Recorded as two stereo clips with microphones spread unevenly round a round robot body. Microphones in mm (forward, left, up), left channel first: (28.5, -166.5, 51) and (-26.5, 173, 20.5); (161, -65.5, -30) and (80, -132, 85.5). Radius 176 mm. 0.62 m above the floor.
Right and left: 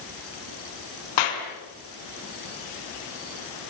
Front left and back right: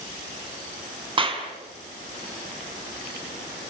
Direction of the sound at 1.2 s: 95° right.